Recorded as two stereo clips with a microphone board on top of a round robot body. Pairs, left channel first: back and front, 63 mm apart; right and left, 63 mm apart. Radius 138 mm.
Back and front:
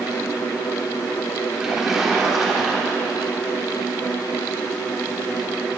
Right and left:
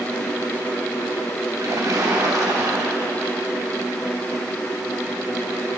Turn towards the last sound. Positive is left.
turn(degrees=80)